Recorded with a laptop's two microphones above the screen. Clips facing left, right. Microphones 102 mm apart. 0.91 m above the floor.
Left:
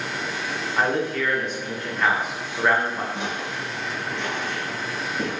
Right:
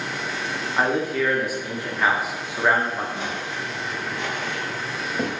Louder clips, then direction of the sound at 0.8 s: Right 1 dB; 10° right (ahead or behind).